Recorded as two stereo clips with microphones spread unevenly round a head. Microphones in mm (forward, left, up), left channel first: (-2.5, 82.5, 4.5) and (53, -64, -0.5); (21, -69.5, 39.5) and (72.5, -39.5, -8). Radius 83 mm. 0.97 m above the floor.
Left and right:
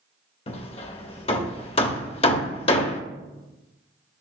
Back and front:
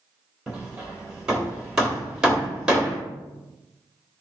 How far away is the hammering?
About 0.9 m.